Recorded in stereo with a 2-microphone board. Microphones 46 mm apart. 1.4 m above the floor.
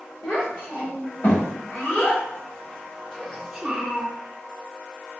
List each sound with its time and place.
0.2 s a child speaking: 60° left (ahead or behind), 1.9 m; by 4.1 s 20° right (ahead or behind), 0.9 m